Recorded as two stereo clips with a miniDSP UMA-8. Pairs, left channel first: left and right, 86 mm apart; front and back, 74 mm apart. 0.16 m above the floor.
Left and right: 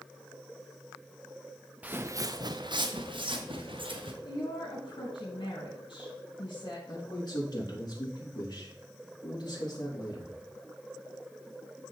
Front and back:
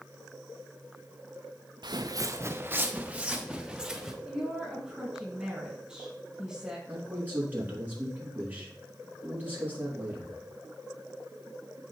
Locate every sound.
1.8 s footsteps: 165° right, 0.7 m; by 4.1 s 95° right, 2.5 m
4.2 s a woman speaking: 100° left, 4.5 m
6.9 s a man speaking: 115° left, 4.5 m